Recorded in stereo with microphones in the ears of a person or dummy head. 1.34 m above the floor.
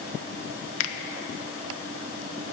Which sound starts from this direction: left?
A finger snap, at 0.8 s.